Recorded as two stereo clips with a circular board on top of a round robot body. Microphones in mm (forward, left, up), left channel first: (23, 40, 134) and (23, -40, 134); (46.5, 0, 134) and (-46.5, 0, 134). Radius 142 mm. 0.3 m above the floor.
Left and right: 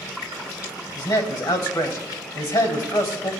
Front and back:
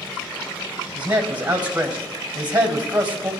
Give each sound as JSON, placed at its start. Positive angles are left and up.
{"t": 0.9, "sound": "a man speaking", "azimuth_deg": 110, "distance_m": 3.0}